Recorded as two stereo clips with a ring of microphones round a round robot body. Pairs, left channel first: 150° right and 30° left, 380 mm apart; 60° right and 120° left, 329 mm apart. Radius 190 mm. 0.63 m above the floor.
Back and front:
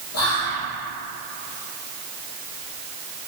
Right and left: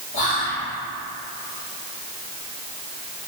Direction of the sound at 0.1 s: 115° right.